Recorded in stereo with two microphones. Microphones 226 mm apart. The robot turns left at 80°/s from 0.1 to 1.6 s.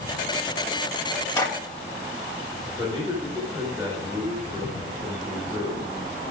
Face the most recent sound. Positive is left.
turn(degrees=-20)  # may be behind; listen again after turning